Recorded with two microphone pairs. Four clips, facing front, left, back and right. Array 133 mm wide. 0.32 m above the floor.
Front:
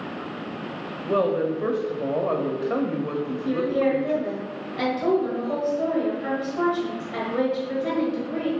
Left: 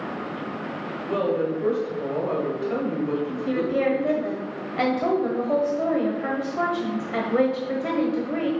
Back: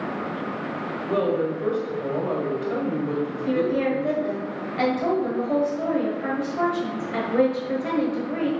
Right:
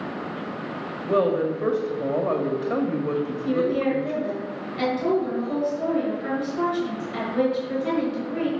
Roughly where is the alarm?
No alarm in this recording.